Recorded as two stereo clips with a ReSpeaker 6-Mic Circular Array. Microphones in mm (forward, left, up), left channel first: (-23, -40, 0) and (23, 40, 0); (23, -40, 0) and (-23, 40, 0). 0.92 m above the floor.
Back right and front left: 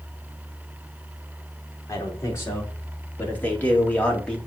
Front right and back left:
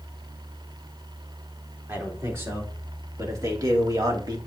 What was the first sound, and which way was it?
A man speaking, 175° right.